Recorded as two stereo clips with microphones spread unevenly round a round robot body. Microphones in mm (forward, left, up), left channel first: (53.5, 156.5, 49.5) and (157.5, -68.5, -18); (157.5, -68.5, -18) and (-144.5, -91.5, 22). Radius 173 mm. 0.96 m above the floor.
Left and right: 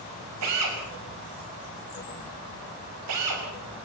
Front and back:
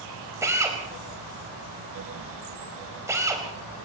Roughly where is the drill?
Right.